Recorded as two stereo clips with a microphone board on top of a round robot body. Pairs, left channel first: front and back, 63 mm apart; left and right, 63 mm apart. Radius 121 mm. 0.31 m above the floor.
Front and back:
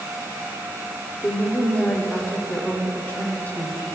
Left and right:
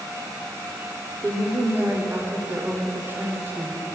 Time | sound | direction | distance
1.2 | a woman speaking | 50° right | 1.0 m